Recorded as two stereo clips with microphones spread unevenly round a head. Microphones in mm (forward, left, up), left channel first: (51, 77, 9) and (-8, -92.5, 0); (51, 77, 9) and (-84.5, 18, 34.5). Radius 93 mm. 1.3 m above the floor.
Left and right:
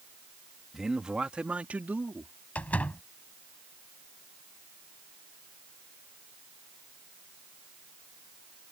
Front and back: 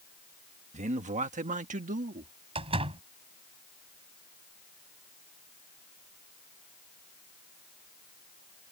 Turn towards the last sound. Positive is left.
turn(degrees=155)